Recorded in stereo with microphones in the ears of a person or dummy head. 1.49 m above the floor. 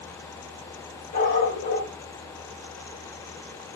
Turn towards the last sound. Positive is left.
turn(degrees=55)  # may be behind; listen again after turning